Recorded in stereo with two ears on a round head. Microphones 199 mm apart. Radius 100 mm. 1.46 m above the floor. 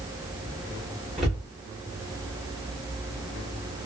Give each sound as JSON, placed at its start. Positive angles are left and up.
{"t": 1.2, "sound": "a cupboard door", "side_deg": 0, "distance_m": 1.2}